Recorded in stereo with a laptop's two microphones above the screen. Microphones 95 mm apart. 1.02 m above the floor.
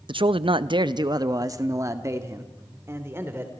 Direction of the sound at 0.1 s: 65° right (ahead or behind).